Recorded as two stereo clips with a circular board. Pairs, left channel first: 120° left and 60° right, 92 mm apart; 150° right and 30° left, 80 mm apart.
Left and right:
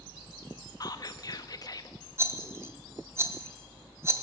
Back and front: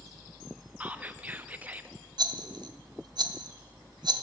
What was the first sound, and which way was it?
Whispering, 90° left.